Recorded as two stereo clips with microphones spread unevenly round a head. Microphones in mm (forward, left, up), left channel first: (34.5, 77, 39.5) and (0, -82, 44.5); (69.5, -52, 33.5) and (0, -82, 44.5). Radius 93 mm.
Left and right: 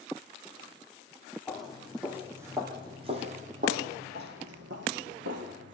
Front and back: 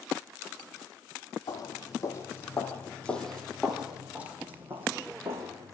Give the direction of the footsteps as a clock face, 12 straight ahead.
12 o'clock.